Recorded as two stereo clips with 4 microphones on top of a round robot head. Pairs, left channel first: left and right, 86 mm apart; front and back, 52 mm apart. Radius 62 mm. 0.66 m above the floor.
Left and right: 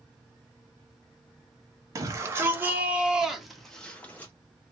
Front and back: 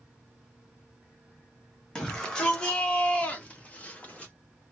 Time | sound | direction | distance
1.9 | a shout | 70° right | 1.4 m